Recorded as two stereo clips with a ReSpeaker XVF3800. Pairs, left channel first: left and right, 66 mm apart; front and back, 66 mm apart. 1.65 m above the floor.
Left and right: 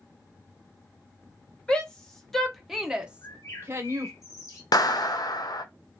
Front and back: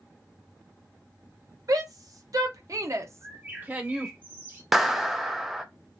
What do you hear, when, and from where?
1.7 s a shout: 165° left, 1.3 m; by 4.1 s 105° right, 0.8 m
3.2 s a bird: 120° left, 1.7 m
4.7 s a clap: 95° left, 0.6 m